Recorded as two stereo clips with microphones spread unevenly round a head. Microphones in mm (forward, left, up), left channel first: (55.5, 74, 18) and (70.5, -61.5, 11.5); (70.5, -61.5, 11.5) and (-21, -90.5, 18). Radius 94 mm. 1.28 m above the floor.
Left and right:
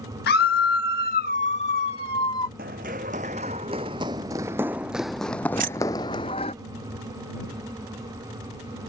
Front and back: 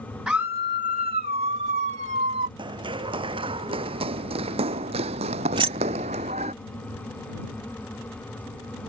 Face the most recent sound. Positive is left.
turn(degrees=-135)